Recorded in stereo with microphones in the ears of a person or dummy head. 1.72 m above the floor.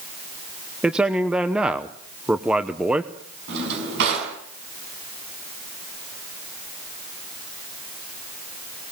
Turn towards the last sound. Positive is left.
turn(degrees=-65)  # may be behind; listen again after turning